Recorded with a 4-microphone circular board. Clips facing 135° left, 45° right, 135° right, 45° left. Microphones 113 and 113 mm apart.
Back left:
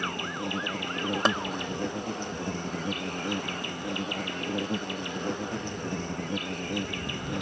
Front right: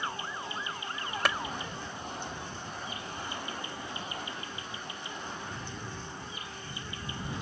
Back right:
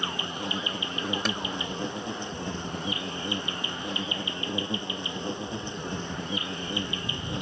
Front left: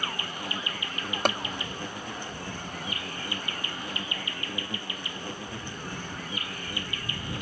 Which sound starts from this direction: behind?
An insect, at 0.0 s.